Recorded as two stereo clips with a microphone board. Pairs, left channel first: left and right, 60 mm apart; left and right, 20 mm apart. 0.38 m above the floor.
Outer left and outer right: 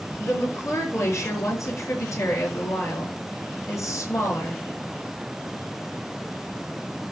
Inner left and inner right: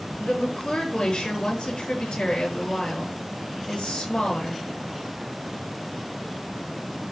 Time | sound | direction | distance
0.2 | a woman speaking | 60° left (ahead or behind) | 5 m